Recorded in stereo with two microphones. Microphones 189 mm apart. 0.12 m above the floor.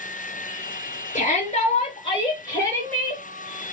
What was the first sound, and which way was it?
A shout, 40° left (ahead or behind).